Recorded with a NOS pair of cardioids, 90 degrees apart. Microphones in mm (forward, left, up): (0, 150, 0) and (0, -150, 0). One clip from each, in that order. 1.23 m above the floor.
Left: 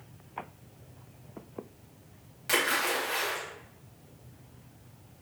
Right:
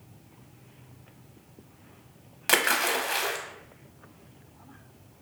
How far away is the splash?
About 0.6 m.